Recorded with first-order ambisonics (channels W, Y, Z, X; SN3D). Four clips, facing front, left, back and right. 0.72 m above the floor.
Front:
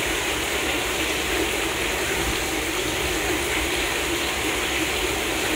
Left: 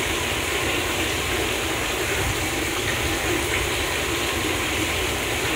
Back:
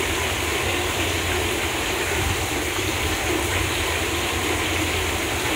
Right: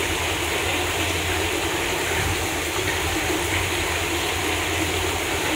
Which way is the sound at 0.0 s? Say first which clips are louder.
Even, back 1 dB; 125° right.